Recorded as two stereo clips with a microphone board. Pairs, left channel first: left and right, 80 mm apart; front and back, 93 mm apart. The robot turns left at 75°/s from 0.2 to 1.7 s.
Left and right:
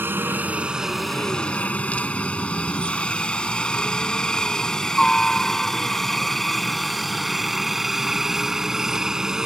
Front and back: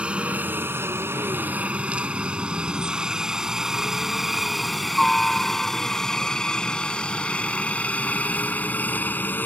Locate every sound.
0.0 s a helicopter: 115° right; by 9.4 s 20° right